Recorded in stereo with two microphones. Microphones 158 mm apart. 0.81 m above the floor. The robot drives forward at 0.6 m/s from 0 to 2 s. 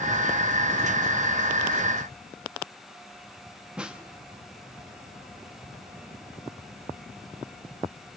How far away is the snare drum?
About 1.2 m.